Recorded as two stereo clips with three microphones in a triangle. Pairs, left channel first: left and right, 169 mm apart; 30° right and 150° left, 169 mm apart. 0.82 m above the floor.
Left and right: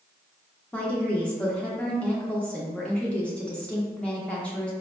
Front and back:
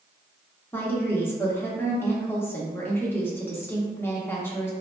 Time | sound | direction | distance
0.7 | a woman speaking | 20° left | 0.8 m